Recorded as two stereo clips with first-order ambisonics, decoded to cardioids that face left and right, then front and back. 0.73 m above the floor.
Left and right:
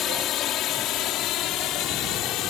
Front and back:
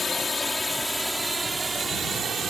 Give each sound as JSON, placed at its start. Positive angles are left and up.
{"t": 0.0, "sound": "a drone", "azimuth_deg": 60}